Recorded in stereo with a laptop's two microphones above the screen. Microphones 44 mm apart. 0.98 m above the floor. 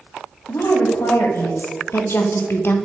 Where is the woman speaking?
70° left (ahead or behind), 1.7 m; by 2.8 s 50° left (ahead or behind), 0.7 m.